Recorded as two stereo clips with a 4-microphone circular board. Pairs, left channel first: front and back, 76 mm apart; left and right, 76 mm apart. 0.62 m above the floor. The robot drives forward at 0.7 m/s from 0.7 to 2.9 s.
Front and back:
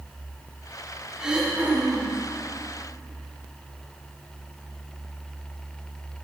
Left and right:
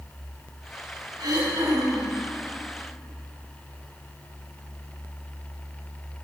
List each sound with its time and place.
1.2 s throat clearing: 100° right, 1.6 m; by 2.1 s 120° right, 1.8 m